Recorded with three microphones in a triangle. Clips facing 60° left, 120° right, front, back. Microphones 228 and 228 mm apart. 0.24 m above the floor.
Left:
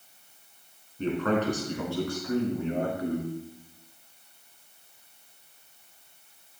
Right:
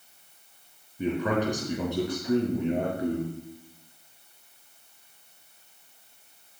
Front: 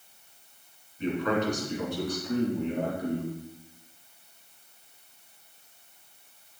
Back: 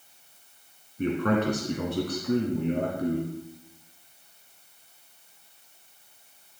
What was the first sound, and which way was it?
A man speaking, 160° left.